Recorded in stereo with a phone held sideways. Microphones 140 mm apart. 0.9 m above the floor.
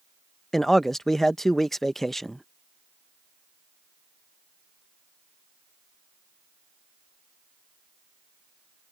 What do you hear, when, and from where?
0.5 s a man speaking: centre (ahead or behind)